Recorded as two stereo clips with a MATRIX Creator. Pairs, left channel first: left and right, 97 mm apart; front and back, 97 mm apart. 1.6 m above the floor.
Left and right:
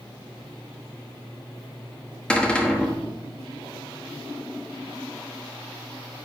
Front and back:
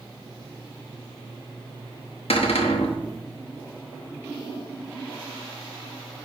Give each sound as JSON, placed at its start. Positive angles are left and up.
{"t": 2.3, "sound": "a cupboard door", "azimuth_deg": 10, "distance_m": 1.1}